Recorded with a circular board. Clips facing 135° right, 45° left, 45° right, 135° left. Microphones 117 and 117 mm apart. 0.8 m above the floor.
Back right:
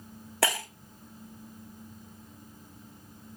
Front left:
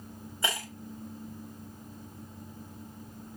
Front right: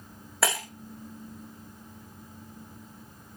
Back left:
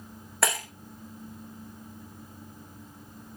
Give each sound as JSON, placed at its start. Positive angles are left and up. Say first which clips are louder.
{"t": 0.4, "sound": "breaking glass", "louder": "back right 5 dB, even", "azimuth_deg": -135, "distance_m": 6.5}